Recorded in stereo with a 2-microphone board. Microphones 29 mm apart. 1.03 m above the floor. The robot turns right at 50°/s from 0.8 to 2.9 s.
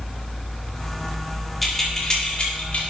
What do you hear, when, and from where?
1.6 s keys jangling: 5° left (ahead or behind), 1.7 m; by 2.8 s 65° left (ahead or behind), 1.7 m